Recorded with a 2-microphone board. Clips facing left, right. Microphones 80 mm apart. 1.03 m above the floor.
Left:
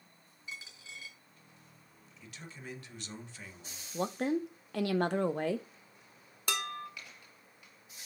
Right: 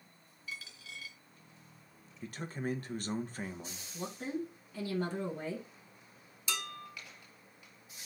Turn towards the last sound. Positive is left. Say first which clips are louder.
# left 4 dB
turn(degrees=60)  # may be behind; listen again after turning